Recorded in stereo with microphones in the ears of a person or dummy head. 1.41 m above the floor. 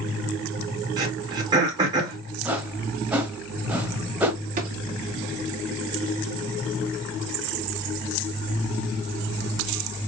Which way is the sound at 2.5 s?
10° right (ahead or behind).